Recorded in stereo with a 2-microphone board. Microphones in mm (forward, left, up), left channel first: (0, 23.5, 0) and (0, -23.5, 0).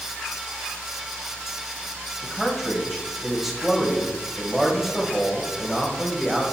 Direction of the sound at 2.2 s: 5° right (ahead or behind).